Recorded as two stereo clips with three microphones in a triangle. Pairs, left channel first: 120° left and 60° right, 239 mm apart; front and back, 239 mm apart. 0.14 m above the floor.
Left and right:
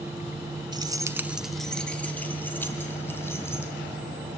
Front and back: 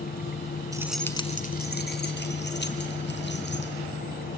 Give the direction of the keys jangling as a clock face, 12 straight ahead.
4 o'clock.